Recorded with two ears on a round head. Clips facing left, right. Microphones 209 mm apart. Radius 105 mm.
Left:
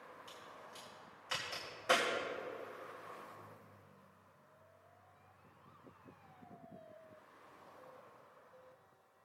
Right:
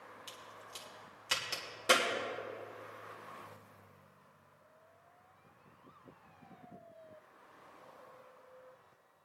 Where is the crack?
50° right (ahead or behind), 2.5 m.